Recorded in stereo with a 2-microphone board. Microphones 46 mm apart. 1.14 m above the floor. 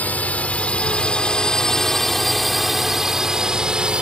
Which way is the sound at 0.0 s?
35° left (ahead or behind).